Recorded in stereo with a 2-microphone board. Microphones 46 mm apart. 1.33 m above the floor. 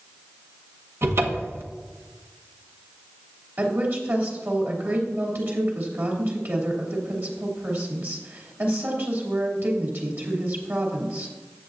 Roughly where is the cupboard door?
Right.